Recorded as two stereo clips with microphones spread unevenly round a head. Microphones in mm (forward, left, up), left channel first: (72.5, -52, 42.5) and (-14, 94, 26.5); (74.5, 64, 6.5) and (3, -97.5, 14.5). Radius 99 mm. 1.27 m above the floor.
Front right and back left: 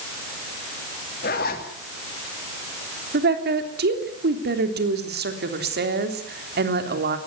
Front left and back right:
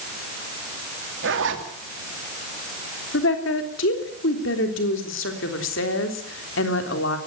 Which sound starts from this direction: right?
A zipper, at 1.2 s.